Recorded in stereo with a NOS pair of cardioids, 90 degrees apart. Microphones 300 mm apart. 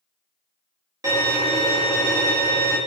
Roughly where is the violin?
Ahead.